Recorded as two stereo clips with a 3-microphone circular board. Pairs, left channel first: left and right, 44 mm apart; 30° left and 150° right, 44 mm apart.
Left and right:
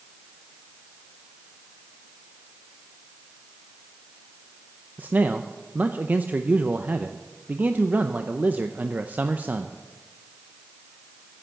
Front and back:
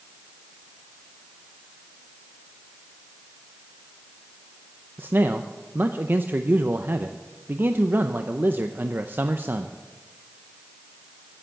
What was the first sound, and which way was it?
A man speaking, 130° right.